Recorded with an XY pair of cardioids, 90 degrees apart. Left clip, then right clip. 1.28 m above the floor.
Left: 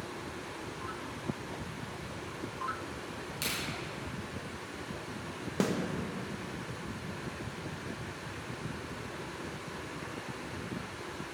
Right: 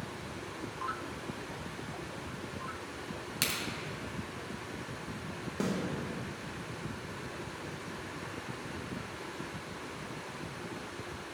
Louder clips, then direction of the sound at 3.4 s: Right 2 dB; 55° right.